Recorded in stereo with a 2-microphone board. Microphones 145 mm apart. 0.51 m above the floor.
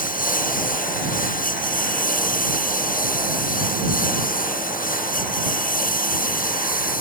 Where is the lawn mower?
70° left (ahead or behind).